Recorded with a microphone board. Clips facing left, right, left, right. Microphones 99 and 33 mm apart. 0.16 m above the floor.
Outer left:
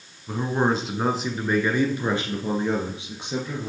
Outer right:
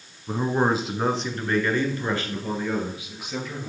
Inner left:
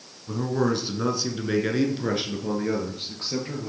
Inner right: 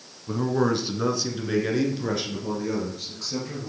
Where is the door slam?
I don't hear a door slam.